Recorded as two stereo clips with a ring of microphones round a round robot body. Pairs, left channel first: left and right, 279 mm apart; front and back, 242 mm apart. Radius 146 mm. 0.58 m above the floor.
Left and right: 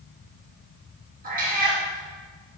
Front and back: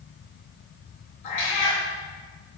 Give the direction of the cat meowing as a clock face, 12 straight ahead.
1 o'clock.